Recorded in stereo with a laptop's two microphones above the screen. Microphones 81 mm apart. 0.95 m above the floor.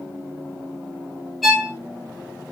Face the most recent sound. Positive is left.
turn(degrees=0)  # may be behind; listen again after turning